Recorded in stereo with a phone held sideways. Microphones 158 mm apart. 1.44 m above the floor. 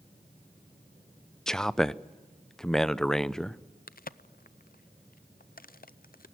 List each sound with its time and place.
1.5 s a man speaking: 5° left (ahead or behind), 0.5 m
3.9 s a crack: 65° left (ahead or behind), 0.5 m